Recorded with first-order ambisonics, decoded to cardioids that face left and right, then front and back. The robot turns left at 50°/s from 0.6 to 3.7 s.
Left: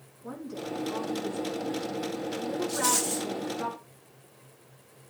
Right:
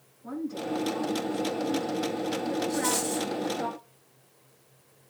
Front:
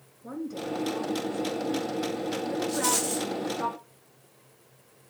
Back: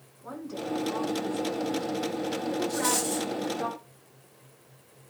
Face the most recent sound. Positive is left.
turn(degrees=0)